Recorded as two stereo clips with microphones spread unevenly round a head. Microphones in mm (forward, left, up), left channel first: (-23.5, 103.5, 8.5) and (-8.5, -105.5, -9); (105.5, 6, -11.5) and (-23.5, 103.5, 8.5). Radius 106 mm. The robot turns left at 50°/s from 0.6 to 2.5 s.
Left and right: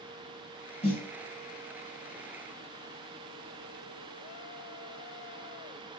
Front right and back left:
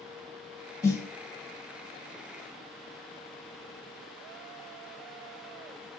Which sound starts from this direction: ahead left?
A snare drum, at 0.8 s.